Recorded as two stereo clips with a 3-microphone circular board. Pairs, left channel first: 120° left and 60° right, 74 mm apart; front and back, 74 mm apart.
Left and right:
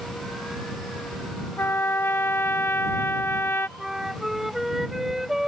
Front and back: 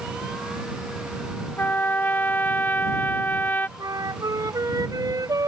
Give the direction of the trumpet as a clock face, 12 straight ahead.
10 o'clock.